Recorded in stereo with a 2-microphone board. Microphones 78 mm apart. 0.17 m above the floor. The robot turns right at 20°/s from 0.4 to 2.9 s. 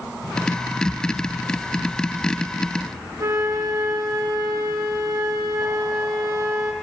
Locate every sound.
3.2 s a flute: 45° right (ahead or behind), 1.2 m